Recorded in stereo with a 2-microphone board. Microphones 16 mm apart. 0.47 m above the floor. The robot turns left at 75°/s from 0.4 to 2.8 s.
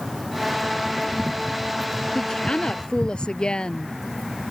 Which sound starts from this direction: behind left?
A woman speaking, at 2.1 s.